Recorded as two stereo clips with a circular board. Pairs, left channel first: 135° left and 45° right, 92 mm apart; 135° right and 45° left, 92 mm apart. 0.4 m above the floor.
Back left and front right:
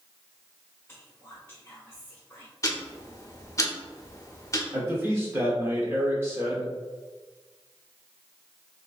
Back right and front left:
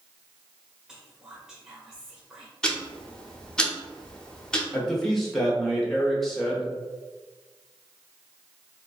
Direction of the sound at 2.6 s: 150° left.